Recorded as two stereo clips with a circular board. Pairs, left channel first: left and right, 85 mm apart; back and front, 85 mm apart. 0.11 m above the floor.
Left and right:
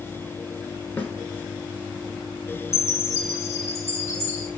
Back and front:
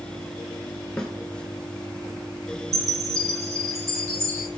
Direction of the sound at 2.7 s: 35° left.